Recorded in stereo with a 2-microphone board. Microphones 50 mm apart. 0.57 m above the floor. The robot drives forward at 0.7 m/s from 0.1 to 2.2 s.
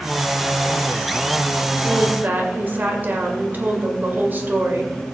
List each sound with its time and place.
1.8 s a woman speaking: 40° right (ahead or behind), 1.8 m; by 5.0 s 35° right (ahead or behind), 2.0 m